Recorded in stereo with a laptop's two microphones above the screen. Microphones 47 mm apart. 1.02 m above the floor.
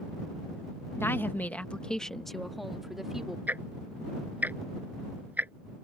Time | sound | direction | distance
1.0 | a woman speaking | 60° left (ahead or behind) | ?
3.5 | ticking | 40° right (ahead or behind) | ?